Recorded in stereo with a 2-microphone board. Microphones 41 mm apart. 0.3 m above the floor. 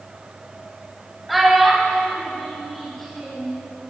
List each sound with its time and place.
1.3 s a child speaking: centre (ahead or behind), 1.1 m; by 3.5 s 10° left (ahead or behind), 4 m